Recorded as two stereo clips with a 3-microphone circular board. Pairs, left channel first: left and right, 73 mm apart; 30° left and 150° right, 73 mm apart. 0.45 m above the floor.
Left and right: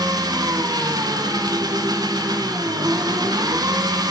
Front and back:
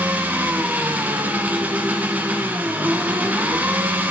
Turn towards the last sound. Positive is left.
turn(degrees=-85)